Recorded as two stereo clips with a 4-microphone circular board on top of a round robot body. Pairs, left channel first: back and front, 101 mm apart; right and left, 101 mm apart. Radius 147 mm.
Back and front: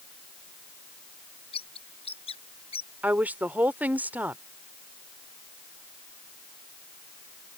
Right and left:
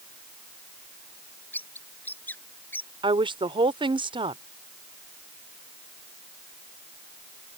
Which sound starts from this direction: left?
A woman speaking, at 3.0 s.